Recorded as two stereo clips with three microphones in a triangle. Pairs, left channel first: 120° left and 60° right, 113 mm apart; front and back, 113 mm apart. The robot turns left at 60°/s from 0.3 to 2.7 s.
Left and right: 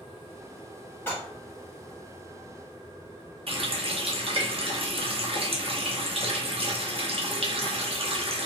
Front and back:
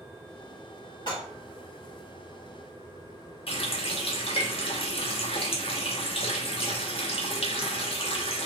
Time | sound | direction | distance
1.1 | dishes clattering | 50° left | 1.5 m
3.5 | a running tap | 30° right | 0.6 m